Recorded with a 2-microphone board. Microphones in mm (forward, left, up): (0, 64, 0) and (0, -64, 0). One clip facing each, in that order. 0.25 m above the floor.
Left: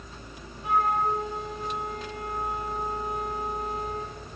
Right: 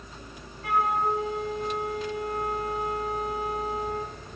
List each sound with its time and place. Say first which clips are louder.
0.6 s a flute: even; 75° right (ahead or behind), 2.5 m